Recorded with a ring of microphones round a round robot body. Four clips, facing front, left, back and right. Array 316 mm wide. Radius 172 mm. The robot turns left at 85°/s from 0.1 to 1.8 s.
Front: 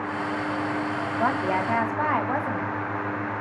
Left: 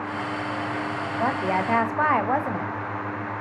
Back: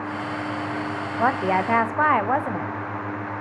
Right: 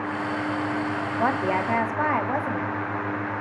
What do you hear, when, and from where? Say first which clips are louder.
1.2 s a woman speaking: even, back 4 dB; 155° right, 0.8 m; by 2.7 s 150° left, 0.8 m